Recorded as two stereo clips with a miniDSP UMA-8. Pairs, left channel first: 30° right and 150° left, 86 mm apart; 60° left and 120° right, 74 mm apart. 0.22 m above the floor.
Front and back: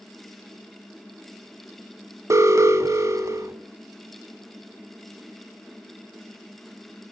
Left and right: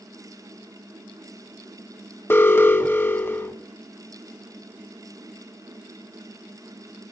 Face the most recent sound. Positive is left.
turn(degrees=110)